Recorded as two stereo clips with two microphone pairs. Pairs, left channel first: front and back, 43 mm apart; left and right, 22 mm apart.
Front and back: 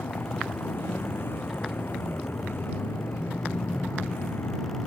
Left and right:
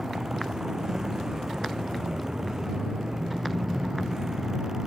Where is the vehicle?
30° right.